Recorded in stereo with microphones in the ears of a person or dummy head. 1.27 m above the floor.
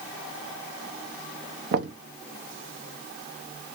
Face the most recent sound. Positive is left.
turn(degrees=-55)  # may be behind; listen again after turning